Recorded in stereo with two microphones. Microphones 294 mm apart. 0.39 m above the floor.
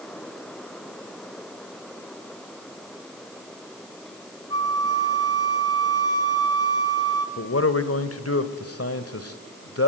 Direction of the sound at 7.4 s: 55° left (ahead or behind).